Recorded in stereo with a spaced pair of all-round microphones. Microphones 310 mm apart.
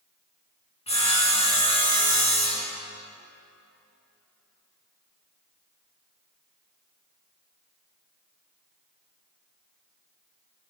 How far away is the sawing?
About 2.5 m.